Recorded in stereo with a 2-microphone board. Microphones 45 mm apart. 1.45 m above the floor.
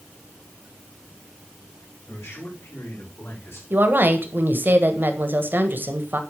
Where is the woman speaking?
50° right (ahead or behind), 1.5 m.